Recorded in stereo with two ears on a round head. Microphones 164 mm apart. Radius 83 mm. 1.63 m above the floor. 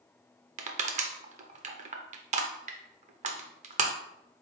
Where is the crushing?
40° right (ahead or behind), 0.6 m.